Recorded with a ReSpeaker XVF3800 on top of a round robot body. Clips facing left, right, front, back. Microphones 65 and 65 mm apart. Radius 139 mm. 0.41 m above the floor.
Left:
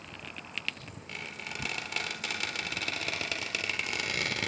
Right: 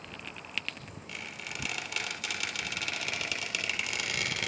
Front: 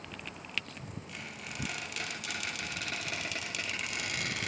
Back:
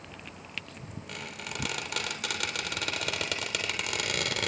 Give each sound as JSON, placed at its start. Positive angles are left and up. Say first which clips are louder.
{"t": 1.1, "sound": "a squeak", "louder": "left 1 dB, back 7 dB", "azimuth_deg": 145, "distance_m": 3.5}